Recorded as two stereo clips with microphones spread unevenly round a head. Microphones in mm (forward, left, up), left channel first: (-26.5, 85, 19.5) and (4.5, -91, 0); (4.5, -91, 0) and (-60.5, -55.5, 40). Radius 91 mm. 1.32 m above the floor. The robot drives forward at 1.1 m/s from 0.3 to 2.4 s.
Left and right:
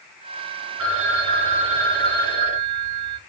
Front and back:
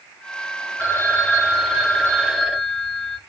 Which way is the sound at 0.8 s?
95° right.